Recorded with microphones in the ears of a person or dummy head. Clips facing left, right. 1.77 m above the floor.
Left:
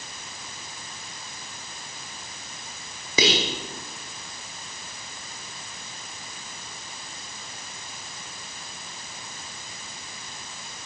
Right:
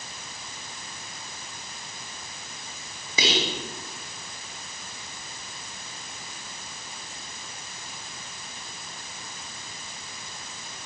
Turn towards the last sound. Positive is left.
turn(degrees=55)  # may be behind; listen again after turning